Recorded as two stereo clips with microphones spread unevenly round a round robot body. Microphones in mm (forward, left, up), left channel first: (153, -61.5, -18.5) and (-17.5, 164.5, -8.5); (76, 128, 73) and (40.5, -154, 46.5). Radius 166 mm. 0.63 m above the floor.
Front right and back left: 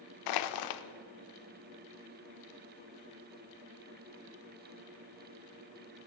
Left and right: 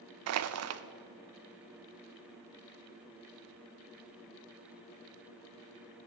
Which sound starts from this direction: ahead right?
Crushing, at 0.3 s.